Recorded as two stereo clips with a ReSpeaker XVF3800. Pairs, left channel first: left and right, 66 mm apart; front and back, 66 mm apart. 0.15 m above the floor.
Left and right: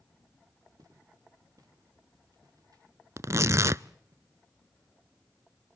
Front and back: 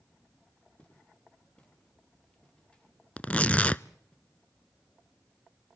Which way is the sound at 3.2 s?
65° right.